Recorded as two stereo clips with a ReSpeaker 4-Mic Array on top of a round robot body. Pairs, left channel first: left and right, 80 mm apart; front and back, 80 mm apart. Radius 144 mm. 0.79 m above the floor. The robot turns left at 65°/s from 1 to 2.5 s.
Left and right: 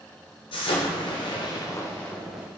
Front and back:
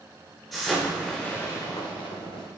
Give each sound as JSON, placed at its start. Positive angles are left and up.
{"t": 0.5, "sound": "an explosion", "azimuth_deg": 85, "distance_m": 1.0}